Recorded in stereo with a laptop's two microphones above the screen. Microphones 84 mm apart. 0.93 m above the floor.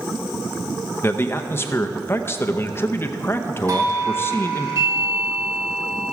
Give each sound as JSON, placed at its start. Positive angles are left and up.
{"t": 1.0, "sound": "a man speaking", "side_deg": 30, "distance_m": 0.6}
{"t": 3.7, "sound": "a doorbell", "side_deg": -40, "distance_m": 2.0}